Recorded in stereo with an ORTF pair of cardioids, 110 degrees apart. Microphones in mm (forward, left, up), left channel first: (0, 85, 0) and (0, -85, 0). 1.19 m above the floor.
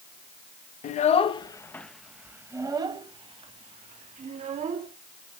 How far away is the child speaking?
About 0.8 m.